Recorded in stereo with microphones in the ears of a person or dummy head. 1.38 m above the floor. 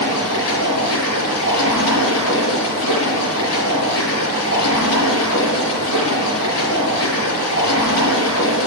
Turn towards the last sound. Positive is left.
turn(degrees=75)  # may be behind; listen again after turning